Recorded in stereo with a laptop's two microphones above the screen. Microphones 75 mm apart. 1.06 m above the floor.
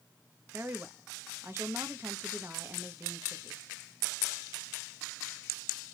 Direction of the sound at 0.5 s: 30° right (ahead or behind).